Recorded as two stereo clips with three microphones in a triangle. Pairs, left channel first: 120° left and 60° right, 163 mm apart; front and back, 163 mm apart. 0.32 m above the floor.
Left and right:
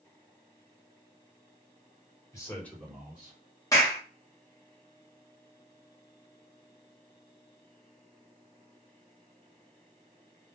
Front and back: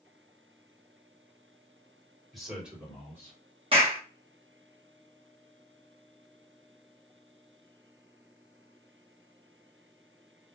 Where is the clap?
170° left, 1.3 m.